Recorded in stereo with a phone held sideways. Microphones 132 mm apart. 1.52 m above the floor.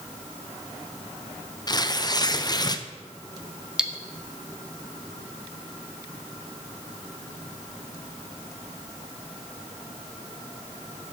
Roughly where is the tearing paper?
Left.